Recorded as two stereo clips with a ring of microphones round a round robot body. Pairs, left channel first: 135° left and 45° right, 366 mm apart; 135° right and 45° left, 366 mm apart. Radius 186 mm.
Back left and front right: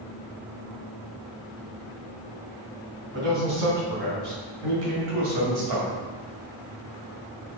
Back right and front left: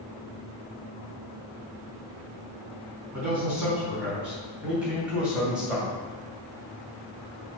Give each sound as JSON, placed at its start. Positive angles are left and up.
{"t": 3.1, "sound": "a man speaking", "azimuth_deg": -40, "distance_m": 4.0}